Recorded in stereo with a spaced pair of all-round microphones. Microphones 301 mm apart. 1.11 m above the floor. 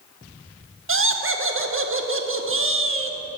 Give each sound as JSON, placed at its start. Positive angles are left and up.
{"t": 0.9, "sound": "laughter", "side_deg": -45, "distance_m": 0.5}